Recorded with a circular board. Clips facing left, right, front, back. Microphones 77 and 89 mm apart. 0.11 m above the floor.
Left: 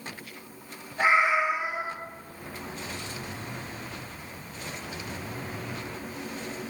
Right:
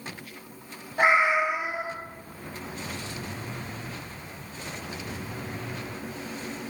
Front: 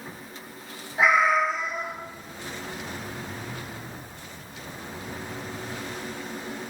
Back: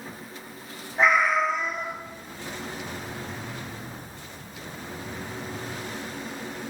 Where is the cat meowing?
80° right, 1.0 m.